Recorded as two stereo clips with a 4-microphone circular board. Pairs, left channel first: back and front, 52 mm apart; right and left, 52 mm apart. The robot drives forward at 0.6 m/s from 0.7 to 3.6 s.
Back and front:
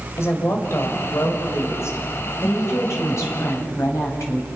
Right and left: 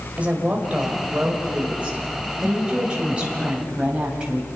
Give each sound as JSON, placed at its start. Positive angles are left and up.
{"t": 0.2, "sound": "a woman speaking", "azimuth_deg": 150, "distance_m": 4.5}